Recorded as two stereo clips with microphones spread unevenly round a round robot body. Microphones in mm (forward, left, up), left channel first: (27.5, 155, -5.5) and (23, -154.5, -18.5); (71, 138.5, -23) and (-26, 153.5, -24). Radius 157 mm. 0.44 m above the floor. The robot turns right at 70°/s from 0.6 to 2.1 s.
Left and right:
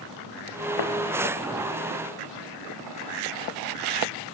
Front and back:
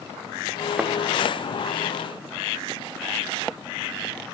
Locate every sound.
0.8 s a thud: 90° left, 3.5 m; by 0.9 s 100° left, 3.5 m